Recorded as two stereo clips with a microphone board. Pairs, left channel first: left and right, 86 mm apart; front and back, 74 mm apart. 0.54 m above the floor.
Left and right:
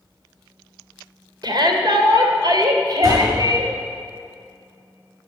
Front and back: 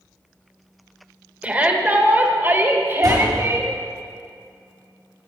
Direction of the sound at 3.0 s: 145° right.